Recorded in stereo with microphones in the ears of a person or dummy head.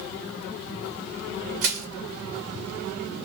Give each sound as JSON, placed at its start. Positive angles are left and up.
{"t": 1.6, "sound": "crushing", "side_deg": -40, "distance_m": 0.8}